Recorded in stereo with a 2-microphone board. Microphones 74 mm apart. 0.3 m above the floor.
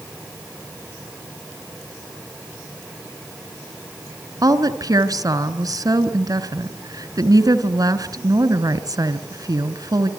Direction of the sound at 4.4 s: 55° right (ahead or behind).